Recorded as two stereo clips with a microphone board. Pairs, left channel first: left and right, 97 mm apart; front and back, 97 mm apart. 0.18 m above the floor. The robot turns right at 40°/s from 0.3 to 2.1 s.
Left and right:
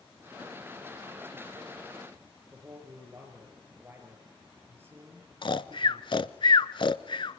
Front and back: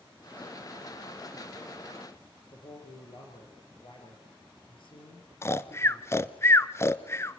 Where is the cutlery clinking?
No cutlery clinking in this recording.